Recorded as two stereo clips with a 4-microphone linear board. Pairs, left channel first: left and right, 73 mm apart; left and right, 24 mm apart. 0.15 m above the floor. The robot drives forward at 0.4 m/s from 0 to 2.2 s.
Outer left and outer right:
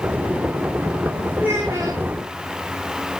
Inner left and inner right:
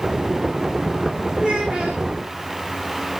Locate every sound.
1.4 s a child speaking: 30° right (ahead or behind), 9 m